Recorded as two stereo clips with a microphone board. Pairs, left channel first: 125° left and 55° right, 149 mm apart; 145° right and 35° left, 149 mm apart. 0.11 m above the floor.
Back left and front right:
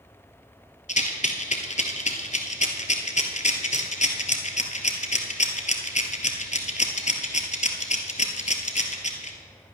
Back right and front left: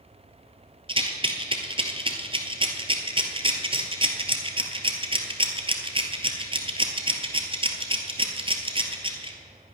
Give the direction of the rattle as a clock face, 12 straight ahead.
9 o'clock.